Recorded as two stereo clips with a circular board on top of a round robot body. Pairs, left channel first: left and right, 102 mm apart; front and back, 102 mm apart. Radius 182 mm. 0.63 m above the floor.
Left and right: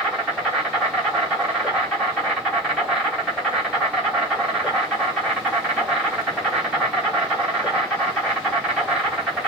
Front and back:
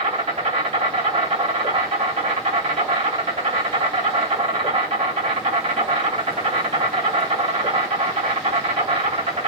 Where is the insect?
175° right, 3 m.